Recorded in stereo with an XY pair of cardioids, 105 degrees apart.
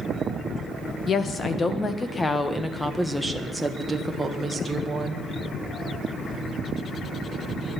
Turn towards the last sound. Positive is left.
turn(degrees=-25)